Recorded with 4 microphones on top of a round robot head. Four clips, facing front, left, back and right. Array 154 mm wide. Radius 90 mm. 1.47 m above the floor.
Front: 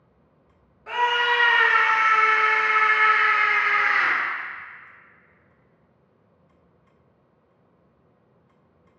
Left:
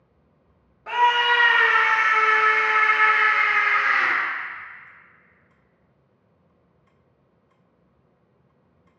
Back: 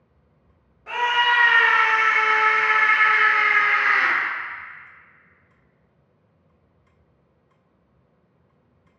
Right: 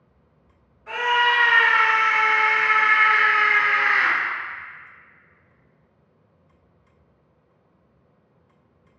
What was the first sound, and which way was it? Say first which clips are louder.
A scream: left 2 dB, back 1 dB; 100° left.